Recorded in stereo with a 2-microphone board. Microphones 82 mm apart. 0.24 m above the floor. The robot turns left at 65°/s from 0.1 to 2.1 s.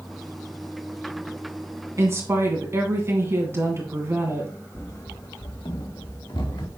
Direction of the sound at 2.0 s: 40° right (ahead or behind).